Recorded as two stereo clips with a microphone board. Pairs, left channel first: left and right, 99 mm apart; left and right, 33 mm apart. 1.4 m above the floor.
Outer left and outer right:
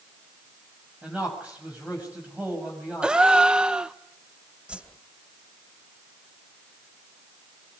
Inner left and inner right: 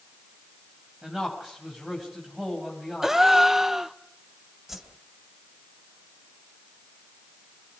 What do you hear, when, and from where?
1.0 s a man speaking: 15° right (ahead or behind), 7 m
3.0 s a gasp: 10° right (ahead or behind), 0.8 m
4.7 s a whoosh: 15° right (ahead or behind), 2.5 m